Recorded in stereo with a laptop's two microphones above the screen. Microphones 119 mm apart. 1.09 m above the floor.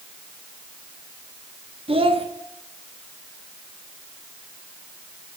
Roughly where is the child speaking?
Right.